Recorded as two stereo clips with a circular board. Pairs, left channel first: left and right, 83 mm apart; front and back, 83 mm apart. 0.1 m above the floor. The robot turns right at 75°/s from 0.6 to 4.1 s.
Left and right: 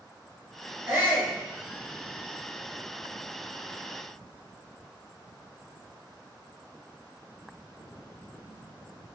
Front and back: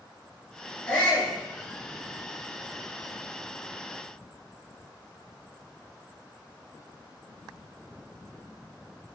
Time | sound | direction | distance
0.9 | a shout | 65° right | 1.7 m